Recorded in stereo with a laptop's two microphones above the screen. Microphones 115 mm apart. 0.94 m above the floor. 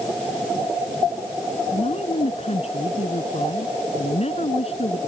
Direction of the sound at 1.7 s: 65° left (ahead or behind).